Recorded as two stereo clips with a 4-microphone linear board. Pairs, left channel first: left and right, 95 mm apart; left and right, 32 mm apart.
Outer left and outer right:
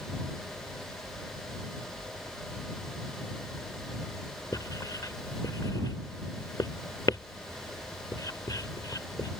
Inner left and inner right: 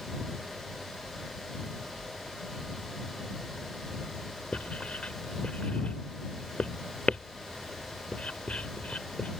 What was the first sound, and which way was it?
Writing, 45° left (ahead or behind).